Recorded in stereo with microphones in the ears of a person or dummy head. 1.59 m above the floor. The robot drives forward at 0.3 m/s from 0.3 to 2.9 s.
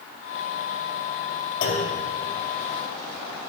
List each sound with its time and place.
1.6 s a clunk: 55° left (ahead or behind), 2 m